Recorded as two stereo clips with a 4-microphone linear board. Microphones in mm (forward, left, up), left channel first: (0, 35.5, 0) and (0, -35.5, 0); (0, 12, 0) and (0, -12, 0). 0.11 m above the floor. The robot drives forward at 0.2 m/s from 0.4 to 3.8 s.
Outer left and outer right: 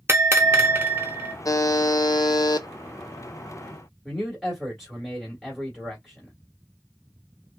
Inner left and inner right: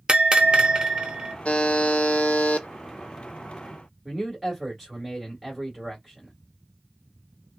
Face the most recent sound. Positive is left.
turn(degrees=0)  # may be behind; listen again after turning